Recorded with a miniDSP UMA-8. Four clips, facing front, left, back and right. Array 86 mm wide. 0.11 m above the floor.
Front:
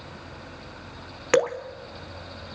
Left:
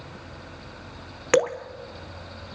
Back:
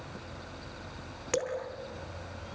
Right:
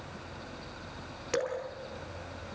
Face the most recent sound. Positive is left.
turn(degrees=50)